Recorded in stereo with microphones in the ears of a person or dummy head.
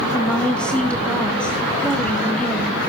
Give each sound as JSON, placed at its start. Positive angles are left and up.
{"t": 0.1, "sound": "a woman speaking", "side_deg": 5, "distance_m": 1.5}